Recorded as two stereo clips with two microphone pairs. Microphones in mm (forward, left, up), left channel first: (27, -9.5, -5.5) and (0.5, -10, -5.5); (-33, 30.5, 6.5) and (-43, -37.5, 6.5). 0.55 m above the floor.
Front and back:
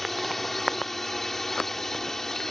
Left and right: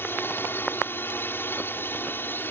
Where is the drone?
80° left; by 2.5 s 60° left.